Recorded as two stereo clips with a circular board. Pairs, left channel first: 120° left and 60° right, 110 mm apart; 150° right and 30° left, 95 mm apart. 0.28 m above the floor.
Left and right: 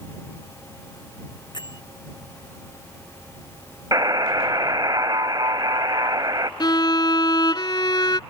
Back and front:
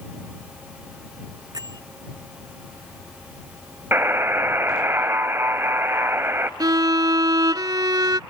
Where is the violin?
75° left.